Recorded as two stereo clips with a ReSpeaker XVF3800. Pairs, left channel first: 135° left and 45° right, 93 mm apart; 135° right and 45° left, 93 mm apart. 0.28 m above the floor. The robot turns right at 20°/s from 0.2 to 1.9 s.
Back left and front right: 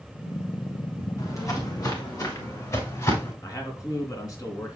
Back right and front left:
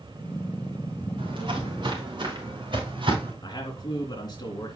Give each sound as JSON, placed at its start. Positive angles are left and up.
{"t": 1.2, "sound": "footsteps", "azimuth_deg": 75, "distance_m": 3.0}
{"t": 3.4, "sound": "a man speaking", "azimuth_deg": -175, "distance_m": 3.0}